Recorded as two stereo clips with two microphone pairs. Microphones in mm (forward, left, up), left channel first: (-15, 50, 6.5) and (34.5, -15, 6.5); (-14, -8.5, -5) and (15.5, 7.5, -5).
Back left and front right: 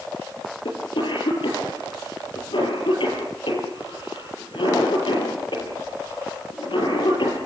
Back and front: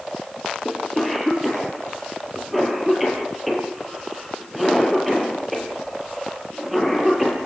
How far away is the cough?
About 7 m.